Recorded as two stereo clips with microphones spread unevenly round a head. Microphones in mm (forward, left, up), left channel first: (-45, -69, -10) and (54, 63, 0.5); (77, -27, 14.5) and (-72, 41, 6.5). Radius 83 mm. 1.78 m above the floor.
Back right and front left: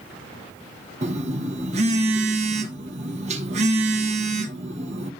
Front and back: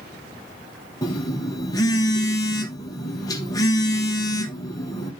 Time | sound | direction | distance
1.0 | a phone buzzing | 35° left | 1.1 m